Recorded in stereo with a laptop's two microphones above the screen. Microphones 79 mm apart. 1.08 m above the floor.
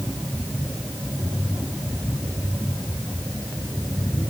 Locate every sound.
Only background noise.